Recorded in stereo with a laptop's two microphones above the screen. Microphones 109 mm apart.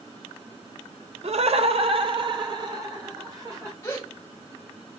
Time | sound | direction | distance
1.2 | laughter | 60° right (ahead or behind) | 0.5 m
3.8 | a gasp | 20° left (ahead or behind) | 2.0 m